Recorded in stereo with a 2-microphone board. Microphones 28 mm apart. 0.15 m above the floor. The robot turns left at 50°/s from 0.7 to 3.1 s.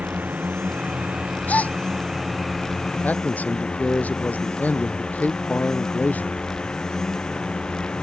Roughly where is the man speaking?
Left.